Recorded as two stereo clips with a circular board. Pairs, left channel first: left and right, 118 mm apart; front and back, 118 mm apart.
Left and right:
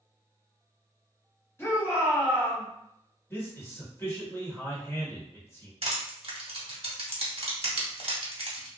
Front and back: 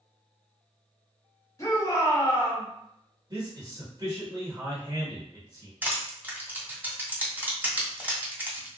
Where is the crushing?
105° right, 1.3 m.